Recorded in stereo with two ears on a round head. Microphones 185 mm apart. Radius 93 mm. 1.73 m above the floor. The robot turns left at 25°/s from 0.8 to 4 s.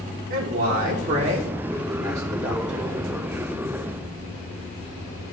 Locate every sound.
0.3 s a man speaking: 125° right, 1.0 m; by 2.9 s straight behind, 1.0 m